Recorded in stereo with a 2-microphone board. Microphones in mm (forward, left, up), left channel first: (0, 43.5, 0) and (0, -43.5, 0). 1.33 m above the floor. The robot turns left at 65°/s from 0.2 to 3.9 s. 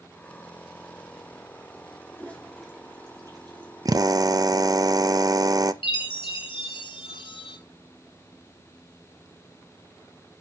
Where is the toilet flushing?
30° left (ahead or behind), 3 m; by 3.7 s 65° right (ahead or behind), 3 m.